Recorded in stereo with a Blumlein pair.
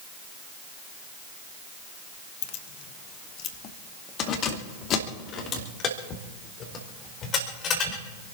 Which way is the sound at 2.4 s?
50° left.